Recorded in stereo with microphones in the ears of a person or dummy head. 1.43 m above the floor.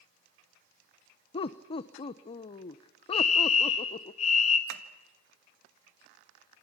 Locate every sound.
1.3 s laughter: 30° left (ahead or behind), 0.7 m
3.1 s a fire alarm: 40° left (ahead or behind), 2.5 m
4.7 s tapping: 75° right (ahead or behind), 1.5 m